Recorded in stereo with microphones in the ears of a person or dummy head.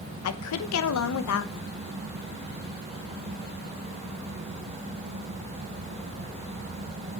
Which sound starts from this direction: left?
A woman speaking, at 0.2 s.